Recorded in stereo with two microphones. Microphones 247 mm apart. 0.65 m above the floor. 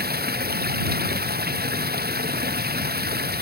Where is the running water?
40° right (ahead or behind).